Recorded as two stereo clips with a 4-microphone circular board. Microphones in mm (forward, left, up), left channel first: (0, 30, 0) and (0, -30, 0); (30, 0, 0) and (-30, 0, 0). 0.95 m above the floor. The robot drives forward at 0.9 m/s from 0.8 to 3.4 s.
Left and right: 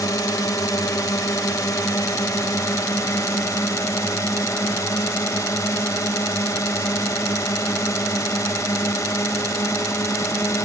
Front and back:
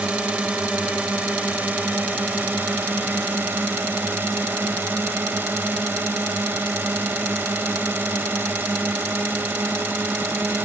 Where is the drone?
110° left; by 10.7 s 125° left.